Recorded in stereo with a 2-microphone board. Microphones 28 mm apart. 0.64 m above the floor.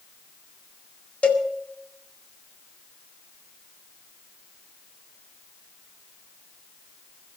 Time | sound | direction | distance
1.2 | a cowbell | 50° left (ahead or behind) | 1.9 m